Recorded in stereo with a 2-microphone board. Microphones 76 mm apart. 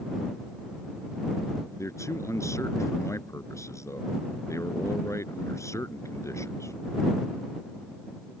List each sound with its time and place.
1.8 s a man speaking: 40° left (ahead or behind)